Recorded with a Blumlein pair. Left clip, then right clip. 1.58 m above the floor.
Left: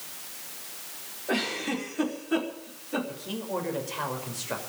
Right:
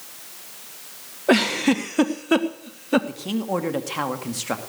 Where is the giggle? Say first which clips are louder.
Right 10 dB; 35° right, 1.4 m.